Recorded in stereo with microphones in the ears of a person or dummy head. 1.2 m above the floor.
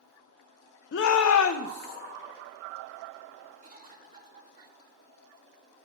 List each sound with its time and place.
0.9 s a shout: 50° left (ahead or behind), 0.5 m
3.6 s a cough: 45° right (ahead or behind), 2 m